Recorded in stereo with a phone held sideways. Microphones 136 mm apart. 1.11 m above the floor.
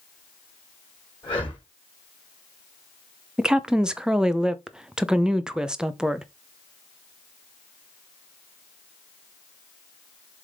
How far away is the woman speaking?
About 0.7 m.